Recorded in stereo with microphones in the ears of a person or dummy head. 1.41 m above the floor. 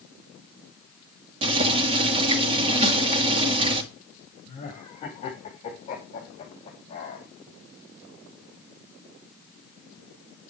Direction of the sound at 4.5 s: 30° left (ahead or behind).